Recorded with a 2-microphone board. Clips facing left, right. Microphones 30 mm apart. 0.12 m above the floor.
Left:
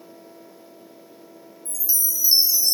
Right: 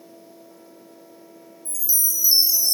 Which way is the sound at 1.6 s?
25° left (ahead or behind).